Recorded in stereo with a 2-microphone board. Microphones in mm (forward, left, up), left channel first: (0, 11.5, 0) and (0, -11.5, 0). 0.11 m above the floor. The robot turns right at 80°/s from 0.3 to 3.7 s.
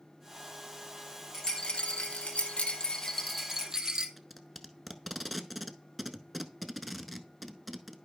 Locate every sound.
1.3 s a rattle: 15° left, 1.1 m; by 4.1 s 160° right, 1.1 m
4.2 s tape being pulled: 5° right (ahead or behind), 0.6 m